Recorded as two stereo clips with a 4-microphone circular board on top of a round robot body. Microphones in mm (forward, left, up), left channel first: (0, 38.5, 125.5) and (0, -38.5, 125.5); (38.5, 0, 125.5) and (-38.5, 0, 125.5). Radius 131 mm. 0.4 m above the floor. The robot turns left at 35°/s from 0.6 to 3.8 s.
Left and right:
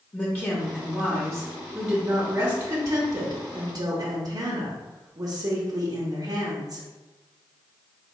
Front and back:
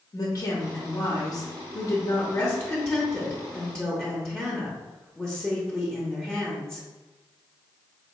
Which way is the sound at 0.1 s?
30° left.